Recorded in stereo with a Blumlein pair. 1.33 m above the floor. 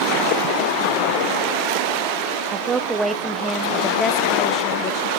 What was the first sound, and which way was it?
A woman speaking, 25° right.